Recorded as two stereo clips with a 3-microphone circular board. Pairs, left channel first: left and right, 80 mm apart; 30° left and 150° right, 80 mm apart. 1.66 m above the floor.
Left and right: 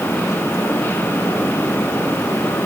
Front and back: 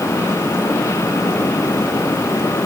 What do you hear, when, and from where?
Only background noise.